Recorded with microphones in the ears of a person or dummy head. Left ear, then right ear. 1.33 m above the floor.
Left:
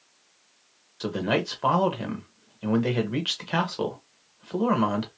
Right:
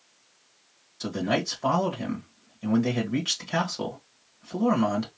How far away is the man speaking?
About 1.4 m.